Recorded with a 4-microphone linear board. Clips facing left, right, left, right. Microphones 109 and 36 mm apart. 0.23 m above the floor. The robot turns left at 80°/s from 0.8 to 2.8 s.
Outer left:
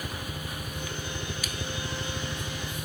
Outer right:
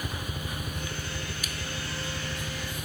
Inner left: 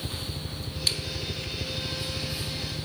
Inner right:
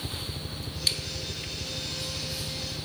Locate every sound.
0.0 s a helicopter: 5° right (ahead or behind); by 2.9 s 20° left (ahead or behind)